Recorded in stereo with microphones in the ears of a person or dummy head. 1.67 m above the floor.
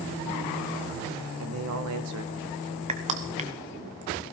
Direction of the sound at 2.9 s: 30° right (ahead or behind).